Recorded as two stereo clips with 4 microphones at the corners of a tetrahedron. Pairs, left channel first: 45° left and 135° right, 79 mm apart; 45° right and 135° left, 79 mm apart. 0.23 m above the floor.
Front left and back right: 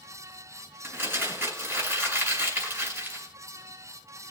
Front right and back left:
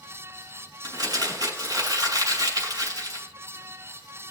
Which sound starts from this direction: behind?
Crumpling, at 0.8 s.